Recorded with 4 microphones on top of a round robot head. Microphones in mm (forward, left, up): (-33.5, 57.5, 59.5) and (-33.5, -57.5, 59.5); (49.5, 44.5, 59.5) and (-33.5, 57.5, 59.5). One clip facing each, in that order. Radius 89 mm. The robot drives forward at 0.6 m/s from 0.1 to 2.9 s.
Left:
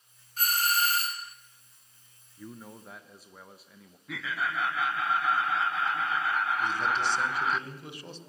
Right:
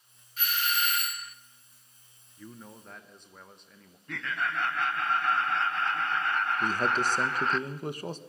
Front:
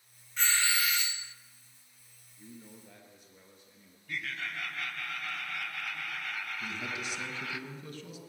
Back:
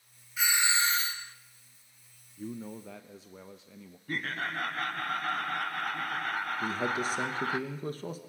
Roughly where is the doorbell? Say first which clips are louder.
Left 3 dB, back 2 dB; left.